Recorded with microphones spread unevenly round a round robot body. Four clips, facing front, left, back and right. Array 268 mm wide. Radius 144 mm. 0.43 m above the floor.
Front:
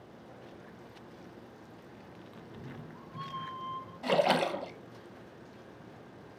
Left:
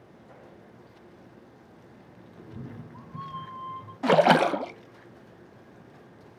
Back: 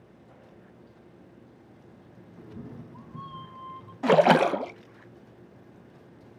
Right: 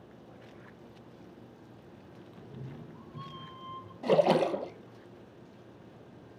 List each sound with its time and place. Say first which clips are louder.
2.4 s a cat meowing: left 5 dB, back 5 dB; 110° left, 2.5 m; by 3.9 s 80° left, 2.5 m
4.0 s a splash: left 5 dB, back 8 dB; 100° left, 0.6 m